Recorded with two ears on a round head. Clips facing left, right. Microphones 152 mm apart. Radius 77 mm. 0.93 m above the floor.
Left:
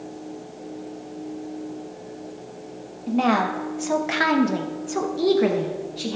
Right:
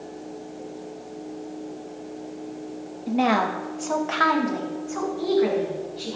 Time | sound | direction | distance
3.1 | a woman speaking | 10° right (ahead or behind) | 1.3 m